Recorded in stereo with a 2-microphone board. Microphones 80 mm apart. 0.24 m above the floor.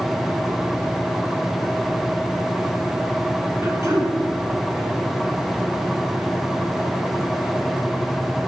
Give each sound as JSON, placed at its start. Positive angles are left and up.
{"t": 3.6, "sound": "throat clearing", "side_deg": -30, "distance_m": 2.0}